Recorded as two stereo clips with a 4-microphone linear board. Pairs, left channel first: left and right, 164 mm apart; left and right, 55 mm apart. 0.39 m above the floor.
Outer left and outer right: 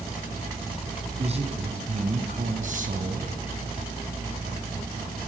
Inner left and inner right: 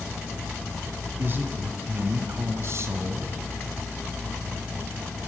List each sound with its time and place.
1.2 s a man speaking: 40° right (ahead or behind), 3.5 m; by 3.4 s 60° right (ahead or behind), 2.5 m